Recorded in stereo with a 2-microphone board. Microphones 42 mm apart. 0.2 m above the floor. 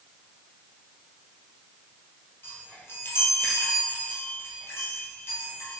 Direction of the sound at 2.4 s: 70° left (ahead or behind).